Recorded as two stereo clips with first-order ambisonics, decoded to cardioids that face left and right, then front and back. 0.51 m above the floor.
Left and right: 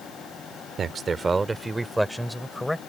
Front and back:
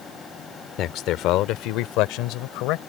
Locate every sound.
0.8 s a man speaking: 30° right; by 2.8 s 5° left